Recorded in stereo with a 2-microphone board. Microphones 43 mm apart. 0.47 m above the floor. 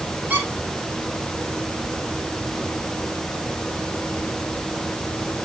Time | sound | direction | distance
0.3 | a squeak | 40° right (ahead or behind) | 4.5 m